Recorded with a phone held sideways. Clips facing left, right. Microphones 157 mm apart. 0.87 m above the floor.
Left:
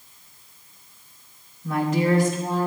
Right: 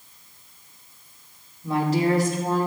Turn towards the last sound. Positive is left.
turn(degrees=-55)  # may be behind; listen again after turning